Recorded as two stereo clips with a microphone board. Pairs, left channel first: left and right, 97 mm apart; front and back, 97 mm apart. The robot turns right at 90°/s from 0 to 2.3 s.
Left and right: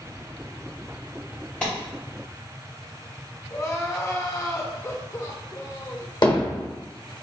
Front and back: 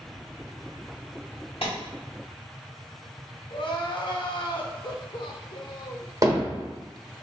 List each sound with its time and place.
1.6 s a clap: 10° left, 1.8 m; by 1.7 s 25° left, 1.8 m
3.5 s crying: 30° left, 0.6 m
6.2 s hammering: 125° left, 1.2 m